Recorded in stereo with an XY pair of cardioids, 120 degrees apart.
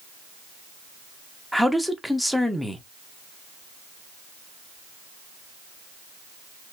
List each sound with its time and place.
1.5 s a man speaking: straight ahead, 0.8 m